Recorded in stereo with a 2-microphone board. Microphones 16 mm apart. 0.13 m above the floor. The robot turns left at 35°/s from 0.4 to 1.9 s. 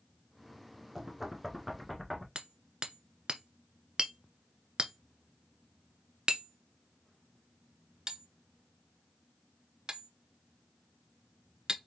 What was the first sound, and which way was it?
Knocking, 15° right (ahead or behind).